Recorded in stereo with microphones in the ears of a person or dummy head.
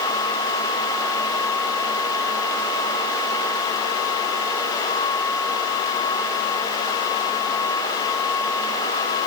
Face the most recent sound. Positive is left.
No sound to turn to.